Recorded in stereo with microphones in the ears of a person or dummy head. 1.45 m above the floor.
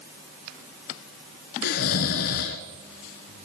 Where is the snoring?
55° left (ahead or behind), 2.5 m.